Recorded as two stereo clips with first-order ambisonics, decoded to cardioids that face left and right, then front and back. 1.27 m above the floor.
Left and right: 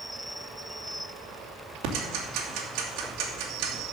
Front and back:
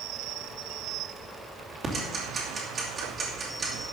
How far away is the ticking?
About 2.5 m.